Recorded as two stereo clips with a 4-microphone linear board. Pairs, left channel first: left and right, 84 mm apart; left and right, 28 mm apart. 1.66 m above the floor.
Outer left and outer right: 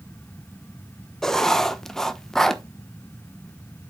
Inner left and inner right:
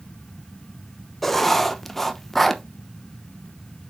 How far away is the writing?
About 0.9 m.